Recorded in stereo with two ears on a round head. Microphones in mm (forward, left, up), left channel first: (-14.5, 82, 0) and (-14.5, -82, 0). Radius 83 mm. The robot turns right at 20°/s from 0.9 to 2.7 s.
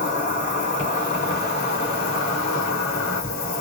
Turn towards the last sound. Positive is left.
turn(degrees=75)